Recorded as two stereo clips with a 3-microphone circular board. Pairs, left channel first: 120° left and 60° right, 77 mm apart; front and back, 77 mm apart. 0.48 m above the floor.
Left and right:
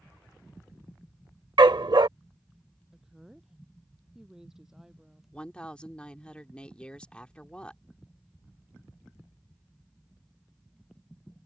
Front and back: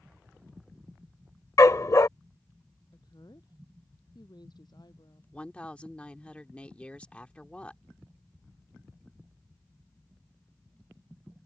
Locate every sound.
1.6 s a dog barking: 45° right
2.9 s a woman speaking: 25° left
5.3 s a woman speaking: 55° left